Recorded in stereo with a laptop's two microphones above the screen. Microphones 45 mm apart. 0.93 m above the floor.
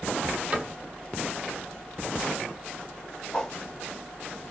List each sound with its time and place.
0.5 s a cupboard door: 30° right (ahead or behind), 1.3 m
3.3 s a whoosh: 15° left (ahead or behind), 0.8 m